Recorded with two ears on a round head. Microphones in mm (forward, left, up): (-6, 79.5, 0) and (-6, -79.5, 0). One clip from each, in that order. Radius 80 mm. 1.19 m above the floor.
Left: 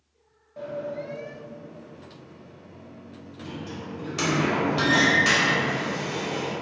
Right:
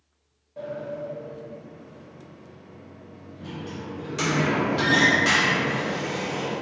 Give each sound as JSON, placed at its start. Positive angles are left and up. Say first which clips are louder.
{"t": 0.6, "sound": "a sliding door", "louder": "even", "side_deg": 10, "distance_m": 0.7}